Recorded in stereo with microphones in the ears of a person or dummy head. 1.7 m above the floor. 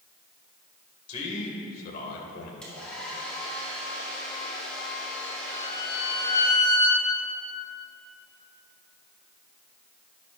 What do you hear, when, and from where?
1.1 s a man speaking: 35° left (ahead or behind), 2 m; by 2.5 s 60° left (ahead or behind), 2 m
2.6 s a hair dryer: centre (ahead or behind), 3.5 m
5.5 s a violin: 40° left (ahead or behind), 2 m